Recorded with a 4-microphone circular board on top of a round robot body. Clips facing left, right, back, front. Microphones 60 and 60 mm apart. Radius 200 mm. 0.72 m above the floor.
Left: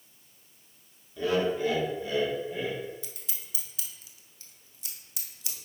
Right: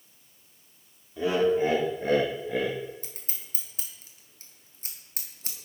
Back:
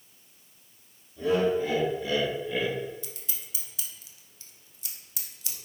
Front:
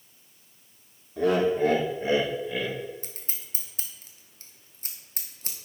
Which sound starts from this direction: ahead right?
Scissors, at 3.0 s.